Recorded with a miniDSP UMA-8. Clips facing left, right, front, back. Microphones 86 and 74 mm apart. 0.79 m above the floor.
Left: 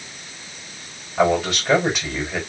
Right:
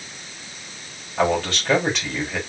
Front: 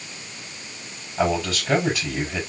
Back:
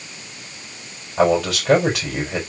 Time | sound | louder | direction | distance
1.2 | a man speaking | left 2 dB, back 6 dB | 170° left | 4 m